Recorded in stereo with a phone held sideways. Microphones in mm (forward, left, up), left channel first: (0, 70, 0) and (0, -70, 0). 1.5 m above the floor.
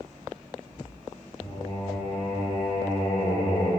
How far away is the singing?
About 3.5 m.